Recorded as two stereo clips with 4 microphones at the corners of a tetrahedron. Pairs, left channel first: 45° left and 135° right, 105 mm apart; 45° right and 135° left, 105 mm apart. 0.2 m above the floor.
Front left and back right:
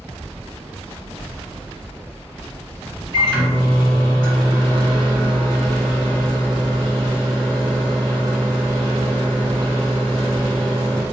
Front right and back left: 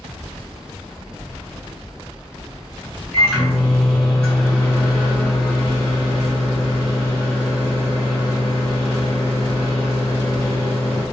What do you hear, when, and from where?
3.1 s a microwave: 120° right, 1.9 m